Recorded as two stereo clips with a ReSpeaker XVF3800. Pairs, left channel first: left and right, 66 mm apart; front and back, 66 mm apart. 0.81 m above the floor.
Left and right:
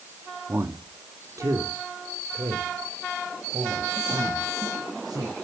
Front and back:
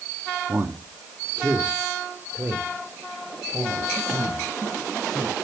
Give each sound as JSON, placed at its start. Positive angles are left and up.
{"t": 0.5, "sound": "a man speaking", "azimuth_deg": -135, "distance_m": 1.3}